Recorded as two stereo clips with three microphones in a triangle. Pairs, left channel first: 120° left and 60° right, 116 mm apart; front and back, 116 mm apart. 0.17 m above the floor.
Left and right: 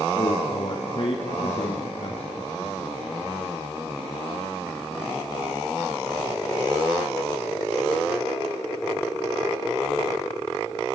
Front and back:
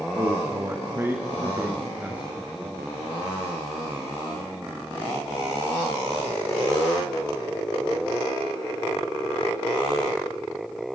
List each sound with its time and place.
0.2 s a man speaking: 135° left, 2 m; by 2.8 s 95° left, 3 m